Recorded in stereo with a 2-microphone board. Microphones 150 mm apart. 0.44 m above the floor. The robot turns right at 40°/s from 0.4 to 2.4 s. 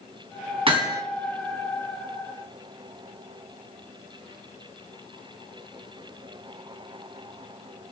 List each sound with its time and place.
0.7 s hammering: 35° right (ahead or behind), 2.5 m; by 1.0 s 25° right (ahead or behind), 2.5 m